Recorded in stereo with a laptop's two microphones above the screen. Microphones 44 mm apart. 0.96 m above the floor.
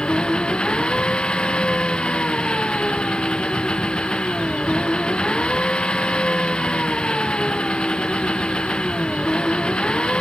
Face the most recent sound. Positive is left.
turn(degrees=25)  # may be behind; listen again after turning